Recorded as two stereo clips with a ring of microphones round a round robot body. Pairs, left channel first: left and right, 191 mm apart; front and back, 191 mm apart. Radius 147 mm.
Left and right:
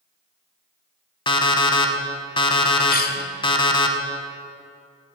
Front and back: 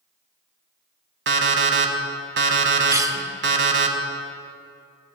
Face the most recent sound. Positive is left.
turn(degrees=110)